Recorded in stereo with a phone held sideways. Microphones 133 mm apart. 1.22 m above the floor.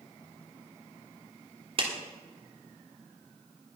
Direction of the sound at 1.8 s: 45° right (ahead or behind).